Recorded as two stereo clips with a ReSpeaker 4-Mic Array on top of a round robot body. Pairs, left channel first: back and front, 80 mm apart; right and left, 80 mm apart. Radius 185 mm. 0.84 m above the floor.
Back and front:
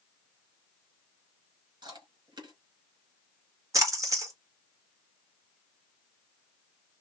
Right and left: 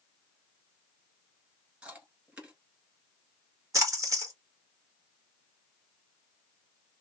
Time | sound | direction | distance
1.8 | chewing | 20° left | 2 m
3.7 | a splash | 45° left | 1.5 m